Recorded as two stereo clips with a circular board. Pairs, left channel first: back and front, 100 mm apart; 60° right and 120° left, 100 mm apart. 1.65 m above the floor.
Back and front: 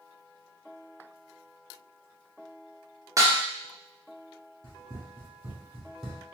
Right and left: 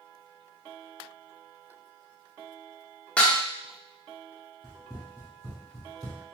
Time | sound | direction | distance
3.2 | dishes clattering | 10° left | 0.7 m
4.6 | running footsteps | 15° left | 1.9 m